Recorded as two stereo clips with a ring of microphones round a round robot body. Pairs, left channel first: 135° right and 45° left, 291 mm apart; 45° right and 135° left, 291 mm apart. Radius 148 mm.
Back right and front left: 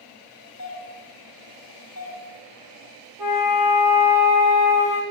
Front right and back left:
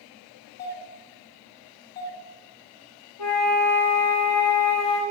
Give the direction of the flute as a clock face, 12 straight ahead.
1 o'clock.